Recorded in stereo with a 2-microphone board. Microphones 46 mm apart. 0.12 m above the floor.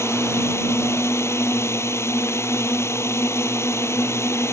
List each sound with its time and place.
0.0 s a drone: 65° left (ahead or behind)